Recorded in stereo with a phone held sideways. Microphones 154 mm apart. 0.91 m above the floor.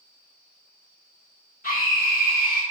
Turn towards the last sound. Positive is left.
turn(degrees=70)  # may be behind; listen again after turning